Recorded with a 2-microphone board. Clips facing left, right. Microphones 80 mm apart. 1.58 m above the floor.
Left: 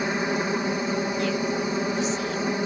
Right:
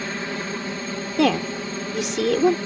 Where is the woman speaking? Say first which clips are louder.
Right 4 dB; 85° right.